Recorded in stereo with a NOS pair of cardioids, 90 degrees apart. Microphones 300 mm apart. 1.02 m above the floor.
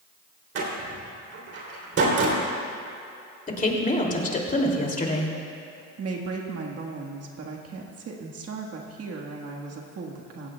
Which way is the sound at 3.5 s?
25° left.